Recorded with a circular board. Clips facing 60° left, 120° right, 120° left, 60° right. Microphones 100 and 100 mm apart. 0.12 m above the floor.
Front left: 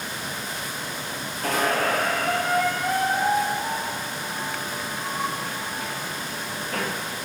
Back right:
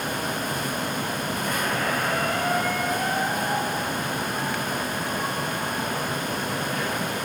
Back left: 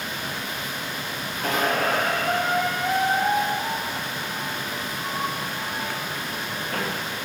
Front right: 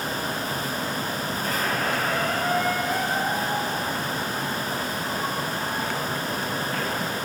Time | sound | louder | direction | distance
1.4 | a squeak | front left 6 dB, back left 5 dB | 85° left | 5.5 m